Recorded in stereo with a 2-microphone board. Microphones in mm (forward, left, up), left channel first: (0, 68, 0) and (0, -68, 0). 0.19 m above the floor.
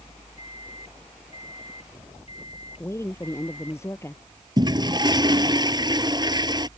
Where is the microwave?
50° left (ahead or behind).